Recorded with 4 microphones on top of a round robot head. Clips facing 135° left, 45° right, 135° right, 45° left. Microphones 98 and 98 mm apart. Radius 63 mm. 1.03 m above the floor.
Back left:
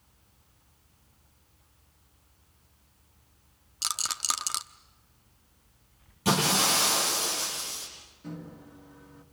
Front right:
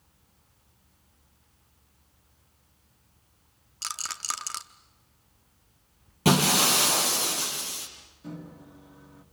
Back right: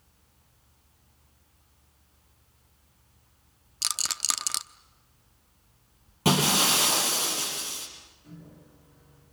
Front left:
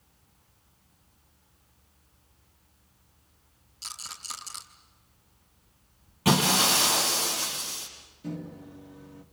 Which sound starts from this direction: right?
Breaking glass, at 6.2 s.